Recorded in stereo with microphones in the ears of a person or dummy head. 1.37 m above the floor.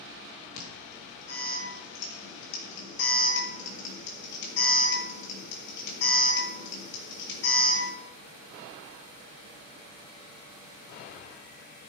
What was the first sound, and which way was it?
An alarm, 65° left (ahead or behind).